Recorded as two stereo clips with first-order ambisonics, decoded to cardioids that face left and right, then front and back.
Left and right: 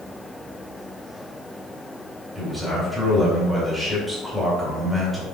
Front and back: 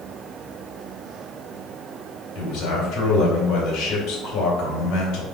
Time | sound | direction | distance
2.4 | a man speaking | 5° right | 1.8 m